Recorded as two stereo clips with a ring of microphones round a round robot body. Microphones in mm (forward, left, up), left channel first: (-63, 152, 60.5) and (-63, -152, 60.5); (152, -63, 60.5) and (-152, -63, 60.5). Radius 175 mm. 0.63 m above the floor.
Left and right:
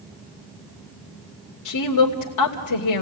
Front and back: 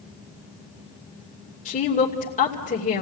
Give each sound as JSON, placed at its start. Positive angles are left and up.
{"t": 1.6, "sound": "a woman speaking", "azimuth_deg": 70, "distance_m": 2.5}